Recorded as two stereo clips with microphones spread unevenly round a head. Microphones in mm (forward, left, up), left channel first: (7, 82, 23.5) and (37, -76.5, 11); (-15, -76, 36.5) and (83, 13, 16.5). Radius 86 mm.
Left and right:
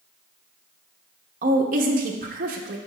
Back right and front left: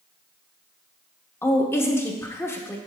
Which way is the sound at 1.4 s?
85° right.